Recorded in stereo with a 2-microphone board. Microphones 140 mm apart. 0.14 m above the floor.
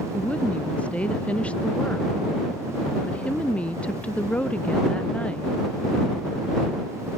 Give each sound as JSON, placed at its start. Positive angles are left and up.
{"t": 0.1, "sound": "a woman speaking", "side_deg": 10}